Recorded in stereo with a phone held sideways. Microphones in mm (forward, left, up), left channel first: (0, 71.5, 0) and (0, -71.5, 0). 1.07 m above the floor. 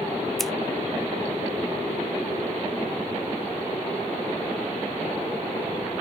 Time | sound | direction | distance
0.4 | scissors | centre (ahead or behind) | 0.5 m